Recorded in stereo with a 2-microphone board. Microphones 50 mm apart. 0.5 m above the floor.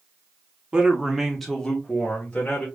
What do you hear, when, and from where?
0.7 s a man speaking: 20° right (ahead or behind), 1.0 m; by 2.7 s 30° left (ahead or behind), 1.7 m